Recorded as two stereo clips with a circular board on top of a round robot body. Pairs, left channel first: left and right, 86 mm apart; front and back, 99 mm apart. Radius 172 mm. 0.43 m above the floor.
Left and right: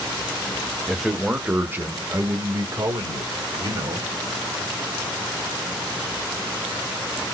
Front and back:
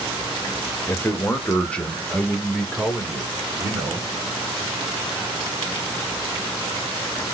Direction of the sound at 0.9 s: 5° left.